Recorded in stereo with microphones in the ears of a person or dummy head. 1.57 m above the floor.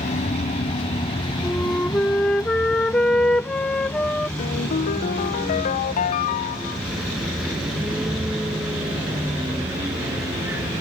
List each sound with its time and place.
0.0 s a vehicle: 40° left (ahead or behind); by 10.8 s 10° right (ahead or behind)
1.4 s a flute: 5° left (ahead or behind)
4.4 s a ringtone: 40° left (ahead or behind)